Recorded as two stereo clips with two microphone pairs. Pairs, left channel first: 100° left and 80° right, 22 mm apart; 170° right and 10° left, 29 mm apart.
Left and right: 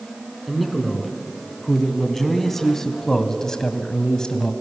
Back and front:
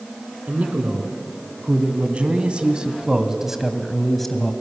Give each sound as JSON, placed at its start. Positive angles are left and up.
{"t": 0.5, "sound": "a man speaking", "azimuth_deg": 10, "distance_m": 3.0}